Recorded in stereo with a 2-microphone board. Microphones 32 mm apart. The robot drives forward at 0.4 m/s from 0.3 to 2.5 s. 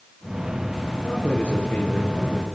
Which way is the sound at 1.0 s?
35° left (ahead or behind).